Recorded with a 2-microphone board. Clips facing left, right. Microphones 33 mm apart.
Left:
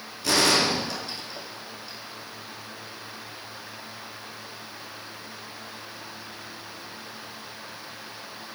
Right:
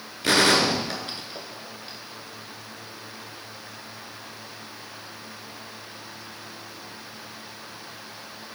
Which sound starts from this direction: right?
A gunshot, at 0.2 s.